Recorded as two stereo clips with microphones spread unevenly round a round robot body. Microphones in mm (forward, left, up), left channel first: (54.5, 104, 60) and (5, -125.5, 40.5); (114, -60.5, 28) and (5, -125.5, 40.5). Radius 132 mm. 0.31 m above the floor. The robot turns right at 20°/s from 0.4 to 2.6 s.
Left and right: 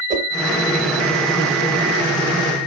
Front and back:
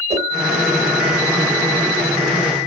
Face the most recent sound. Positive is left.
turn(degrees=-100)